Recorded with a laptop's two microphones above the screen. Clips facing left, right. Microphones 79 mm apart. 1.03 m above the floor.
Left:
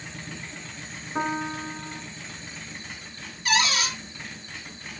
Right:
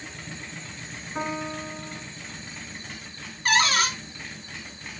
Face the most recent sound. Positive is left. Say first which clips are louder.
# right 2 dB
turn(degrees=-45)  # may be behind; listen again after turning